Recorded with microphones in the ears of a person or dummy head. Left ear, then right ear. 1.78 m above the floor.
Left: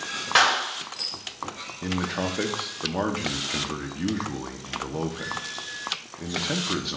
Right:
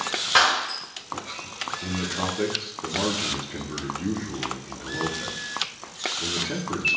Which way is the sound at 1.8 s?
60° left (ahead or behind).